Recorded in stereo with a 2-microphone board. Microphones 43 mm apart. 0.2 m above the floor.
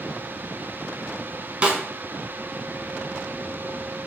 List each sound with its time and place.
1.6 s a snare drum: 30° right (ahead or behind), 0.6 m